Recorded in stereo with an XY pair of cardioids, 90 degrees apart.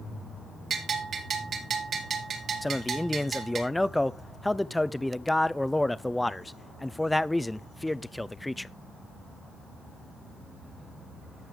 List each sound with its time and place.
0.7 s a bell: 60° right, 3 m
2.6 s a man speaking: 10° left, 0.6 m